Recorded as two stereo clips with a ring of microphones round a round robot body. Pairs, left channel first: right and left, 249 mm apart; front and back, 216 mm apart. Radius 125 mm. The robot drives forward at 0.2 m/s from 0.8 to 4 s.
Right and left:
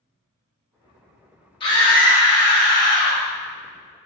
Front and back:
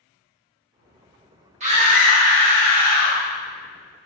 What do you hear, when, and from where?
1.6 s a scream: 145° right, 1.2 m; by 3.2 s 155° right, 1.3 m